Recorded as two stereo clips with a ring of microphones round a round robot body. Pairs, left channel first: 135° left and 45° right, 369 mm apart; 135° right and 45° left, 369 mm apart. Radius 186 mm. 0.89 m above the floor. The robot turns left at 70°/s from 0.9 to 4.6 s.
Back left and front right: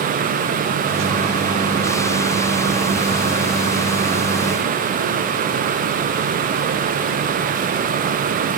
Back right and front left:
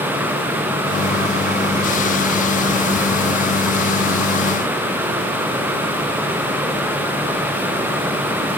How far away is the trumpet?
No trumpet in this recording.